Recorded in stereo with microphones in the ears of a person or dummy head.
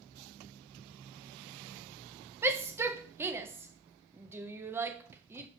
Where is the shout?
10° right (ahead or behind), 0.8 m.